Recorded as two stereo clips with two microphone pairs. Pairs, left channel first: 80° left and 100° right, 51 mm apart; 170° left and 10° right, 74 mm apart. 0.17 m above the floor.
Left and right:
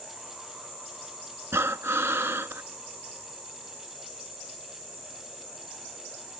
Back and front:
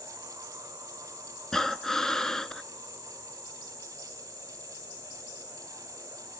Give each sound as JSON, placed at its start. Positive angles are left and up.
{"t": 1.5, "sound": "breathing", "azimuth_deg": -105, "distance_m": 0.7}